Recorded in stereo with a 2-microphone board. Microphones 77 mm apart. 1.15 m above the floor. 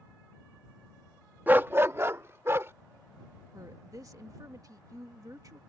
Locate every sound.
1.5 s a dog barking: 25° right (ahead or behind); by 2.7 s 35° right (ahead or behind)
3.5 s a woman speaking: 50° right (ahead or behind)